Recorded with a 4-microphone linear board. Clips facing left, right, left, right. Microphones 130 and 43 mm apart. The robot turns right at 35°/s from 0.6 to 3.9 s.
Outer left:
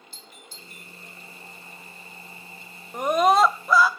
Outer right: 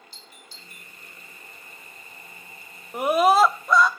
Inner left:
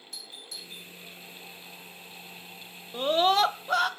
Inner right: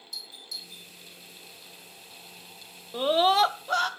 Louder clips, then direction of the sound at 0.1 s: Outer left 2 dB, inner right 2 dB; 50° left (ahead or behind).